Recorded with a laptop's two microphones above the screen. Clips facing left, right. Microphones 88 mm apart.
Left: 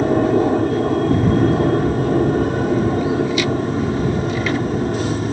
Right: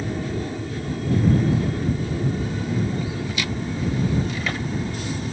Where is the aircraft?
55° left (ahead or behind); by 5.3 s 50° left (ahead or behind).